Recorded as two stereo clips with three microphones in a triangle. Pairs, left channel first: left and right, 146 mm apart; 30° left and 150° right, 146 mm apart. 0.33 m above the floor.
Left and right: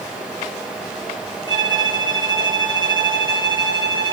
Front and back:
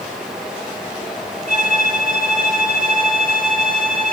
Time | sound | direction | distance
1.5 | a violin | 35° left | 7.5 m